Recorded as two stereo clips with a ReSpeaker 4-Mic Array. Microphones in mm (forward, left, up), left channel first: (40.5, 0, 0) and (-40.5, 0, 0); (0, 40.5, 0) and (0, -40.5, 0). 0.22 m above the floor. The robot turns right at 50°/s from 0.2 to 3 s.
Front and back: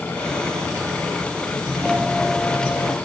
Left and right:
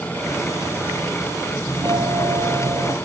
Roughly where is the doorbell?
Behind right.